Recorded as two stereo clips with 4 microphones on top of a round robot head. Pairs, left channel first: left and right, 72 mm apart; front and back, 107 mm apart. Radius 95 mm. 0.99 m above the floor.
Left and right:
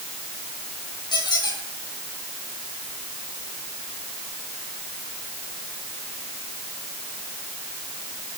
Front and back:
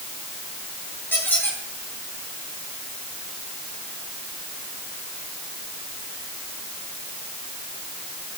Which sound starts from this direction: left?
A squeak, at 1.1 s.